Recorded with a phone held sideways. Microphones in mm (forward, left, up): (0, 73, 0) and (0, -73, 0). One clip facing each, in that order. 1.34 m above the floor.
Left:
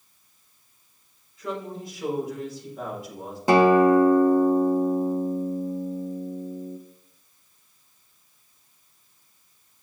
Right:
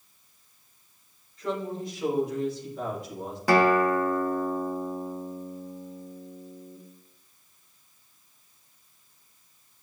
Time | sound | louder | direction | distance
1.4 | a woman speaking | right 2 dB | 5° left (ahead or behind) | 4 m
3.5 | a guitar | left 5 dB | 25° left (ahead or behind) | 0.8 m